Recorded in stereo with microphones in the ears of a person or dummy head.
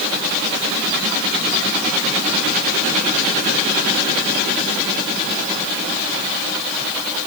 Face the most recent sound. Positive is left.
No sound to turn to.